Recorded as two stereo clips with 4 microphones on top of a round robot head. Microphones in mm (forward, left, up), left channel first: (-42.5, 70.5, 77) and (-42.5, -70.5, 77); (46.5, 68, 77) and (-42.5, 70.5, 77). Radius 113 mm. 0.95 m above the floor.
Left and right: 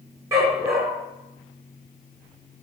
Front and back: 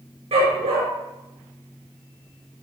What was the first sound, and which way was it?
A dog barking, 160° right.